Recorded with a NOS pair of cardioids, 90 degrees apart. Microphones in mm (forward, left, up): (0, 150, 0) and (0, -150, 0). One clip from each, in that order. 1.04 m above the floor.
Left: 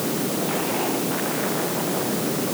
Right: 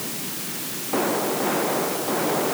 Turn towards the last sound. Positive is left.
No sound to turn to.